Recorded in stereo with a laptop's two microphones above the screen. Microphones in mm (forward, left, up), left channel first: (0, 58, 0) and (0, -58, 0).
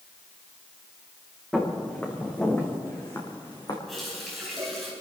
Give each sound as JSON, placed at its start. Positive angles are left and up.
{"t": 1.5, "sound": "footsteps", "side_deg": 5, "distance_m": 4.5}
{"t": 3.9, "sound": "a running tap", "side_deg": 0, "distance_m": 4.0}